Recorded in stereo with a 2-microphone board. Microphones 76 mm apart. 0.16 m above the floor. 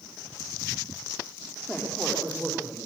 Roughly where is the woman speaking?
Centre.